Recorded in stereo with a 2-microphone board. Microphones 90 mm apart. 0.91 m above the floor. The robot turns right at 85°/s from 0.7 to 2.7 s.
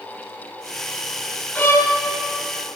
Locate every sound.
1.6 s a violin: 20° left, 0.9 m; by 1.9 s 55° left, 0.9 m